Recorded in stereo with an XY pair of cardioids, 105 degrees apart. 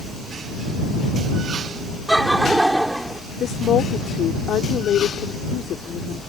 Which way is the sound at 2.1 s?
10° right.